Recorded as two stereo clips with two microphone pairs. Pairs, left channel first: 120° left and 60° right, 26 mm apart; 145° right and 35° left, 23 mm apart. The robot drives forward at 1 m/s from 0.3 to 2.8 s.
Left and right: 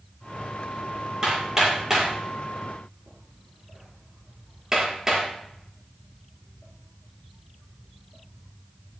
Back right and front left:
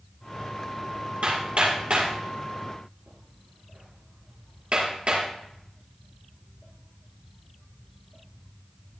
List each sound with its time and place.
1.2 s hammering: 5° left, 7 m; by 5.2 s 10° left, 5.5 m